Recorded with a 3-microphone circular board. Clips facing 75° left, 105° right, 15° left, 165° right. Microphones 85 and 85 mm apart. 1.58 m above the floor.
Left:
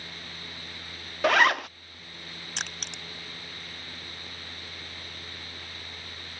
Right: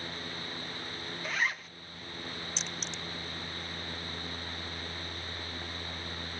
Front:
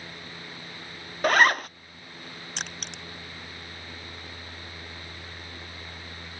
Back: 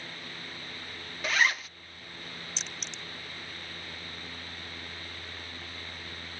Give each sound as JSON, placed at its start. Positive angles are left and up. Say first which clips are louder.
{"t": 1.2, "sound": "a zipper", "louder": "left 13 dB, front 8 dB", "azimuth_deg": 55}
{"t": 2.6, "sound": "crushing", "louder": "left 1 dB, front 4 dB", "azimuth_deg": 45}